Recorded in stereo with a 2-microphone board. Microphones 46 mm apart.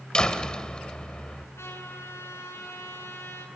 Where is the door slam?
20° left (ahead or behind), 1.5 m.